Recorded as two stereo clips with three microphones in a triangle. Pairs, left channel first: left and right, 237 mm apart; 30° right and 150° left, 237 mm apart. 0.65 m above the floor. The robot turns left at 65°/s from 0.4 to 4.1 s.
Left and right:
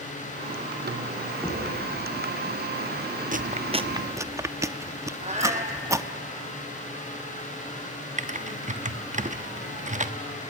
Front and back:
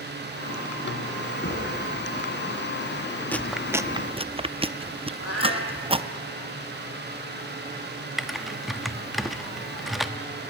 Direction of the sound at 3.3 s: 105° right.